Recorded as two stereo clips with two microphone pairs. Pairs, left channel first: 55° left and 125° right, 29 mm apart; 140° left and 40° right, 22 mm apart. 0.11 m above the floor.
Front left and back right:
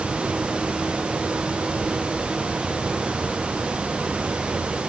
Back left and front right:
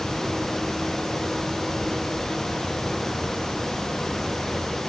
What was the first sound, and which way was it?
Only background noise.